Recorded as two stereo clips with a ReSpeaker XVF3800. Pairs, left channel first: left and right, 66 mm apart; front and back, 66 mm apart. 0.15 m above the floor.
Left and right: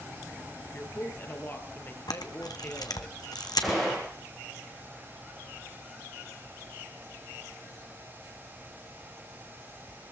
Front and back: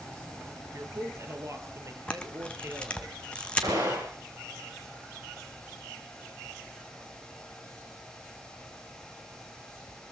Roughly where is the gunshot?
Behind.